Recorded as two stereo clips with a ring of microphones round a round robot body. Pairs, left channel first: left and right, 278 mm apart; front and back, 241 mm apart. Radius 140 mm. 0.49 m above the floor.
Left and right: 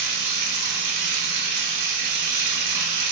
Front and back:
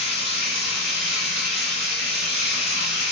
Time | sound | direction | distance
0.0 | running water | 70° right | 0.8 m